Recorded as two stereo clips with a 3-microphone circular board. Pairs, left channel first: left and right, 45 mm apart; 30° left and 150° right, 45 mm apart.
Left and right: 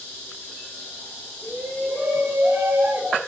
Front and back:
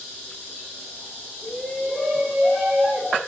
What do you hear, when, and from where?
1.4 s a shout: 50° right, 6.5 m; by 3.2 s 55° right, 4 m